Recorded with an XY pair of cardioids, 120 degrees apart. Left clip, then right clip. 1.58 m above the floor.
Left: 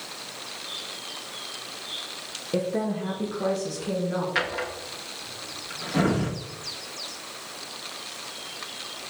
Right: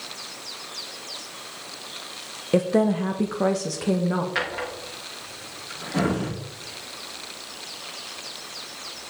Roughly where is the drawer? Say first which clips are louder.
Even; ahead.